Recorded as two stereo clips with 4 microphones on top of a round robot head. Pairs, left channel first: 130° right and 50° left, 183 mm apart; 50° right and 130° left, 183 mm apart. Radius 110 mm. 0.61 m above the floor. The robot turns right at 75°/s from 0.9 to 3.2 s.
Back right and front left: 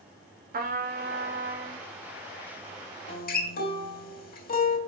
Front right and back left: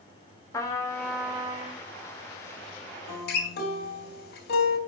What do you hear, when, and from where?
0.5 s a trumpet: 20° left, 2.5 m; by 1.8 s 90° left, 2.5 m
3.1 s a guitar: 95° right, 3 m; by 4.8 s 90° right, 3 m